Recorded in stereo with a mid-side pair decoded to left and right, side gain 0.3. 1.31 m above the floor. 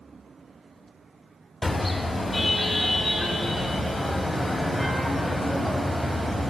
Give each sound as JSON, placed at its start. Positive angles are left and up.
{"t": 1.6, "sound": "a car horn", "azimuth_deg": 25, "distance_m": 3.5}